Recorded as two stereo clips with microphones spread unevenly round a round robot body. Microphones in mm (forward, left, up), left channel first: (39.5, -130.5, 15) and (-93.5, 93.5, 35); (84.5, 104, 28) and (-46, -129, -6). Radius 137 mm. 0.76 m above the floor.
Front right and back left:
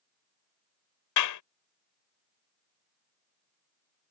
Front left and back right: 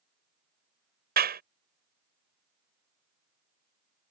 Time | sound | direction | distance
1.2 | a clap | 65° right | ?